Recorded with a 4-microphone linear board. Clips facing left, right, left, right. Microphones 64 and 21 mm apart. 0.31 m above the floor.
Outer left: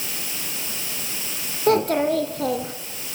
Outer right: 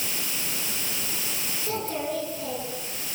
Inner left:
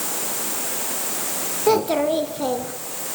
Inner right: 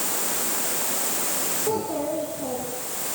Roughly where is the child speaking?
Left.